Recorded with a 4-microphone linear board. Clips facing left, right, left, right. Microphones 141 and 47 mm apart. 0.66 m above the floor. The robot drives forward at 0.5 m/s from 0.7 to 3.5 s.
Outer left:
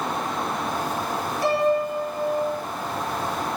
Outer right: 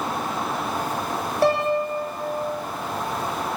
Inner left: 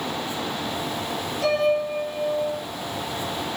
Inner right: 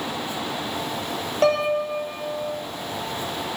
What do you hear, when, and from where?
1.4 s a piano: 60° right (ahead or behind), 0.8 m; by 2.4 s 40° right (ahead or behind), 1.1 m